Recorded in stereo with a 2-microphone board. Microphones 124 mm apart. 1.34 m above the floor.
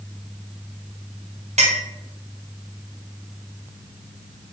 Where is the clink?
70° right (ahead or behind), 0.9 m.